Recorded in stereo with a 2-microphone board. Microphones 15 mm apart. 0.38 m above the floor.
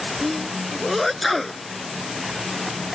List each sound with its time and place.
0.2 s a sneeze: 5° left (ahead or behind)